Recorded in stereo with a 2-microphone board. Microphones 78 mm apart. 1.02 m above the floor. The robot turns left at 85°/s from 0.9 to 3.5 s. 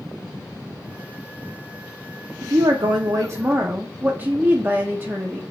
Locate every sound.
2.4 s a woman speaking: 60° right, 0.6 m; by 5.4 s 155° right, 0.6 m